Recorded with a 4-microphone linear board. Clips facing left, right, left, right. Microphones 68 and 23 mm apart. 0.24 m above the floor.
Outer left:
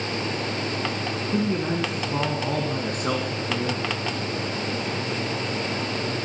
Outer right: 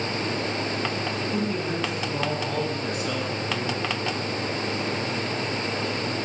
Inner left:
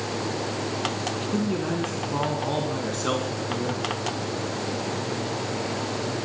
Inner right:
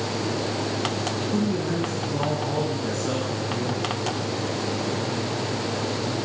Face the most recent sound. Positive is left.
turn(degrees=60)  # may be behind; listen again after turning